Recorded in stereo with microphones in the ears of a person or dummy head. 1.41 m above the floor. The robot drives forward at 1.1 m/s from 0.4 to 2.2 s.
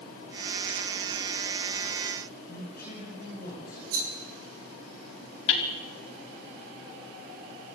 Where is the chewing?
I don't hear chewing.